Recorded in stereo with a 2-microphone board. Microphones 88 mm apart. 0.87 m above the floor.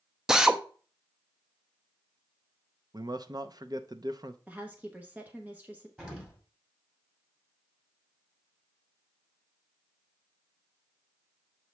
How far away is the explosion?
About 2 m.